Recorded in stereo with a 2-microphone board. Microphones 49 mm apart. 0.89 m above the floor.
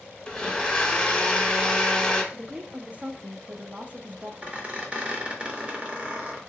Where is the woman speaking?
30° right (ahead or behind), 0.5 m.